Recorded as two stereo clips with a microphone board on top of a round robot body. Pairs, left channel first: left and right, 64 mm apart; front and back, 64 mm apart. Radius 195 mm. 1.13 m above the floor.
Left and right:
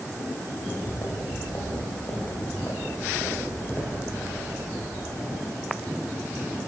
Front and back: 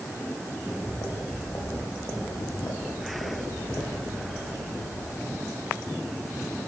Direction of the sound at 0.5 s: 50° left.